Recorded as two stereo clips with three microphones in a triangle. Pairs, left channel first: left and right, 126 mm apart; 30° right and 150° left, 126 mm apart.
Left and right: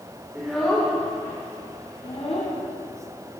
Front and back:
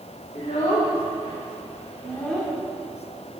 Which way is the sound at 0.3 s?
5° right.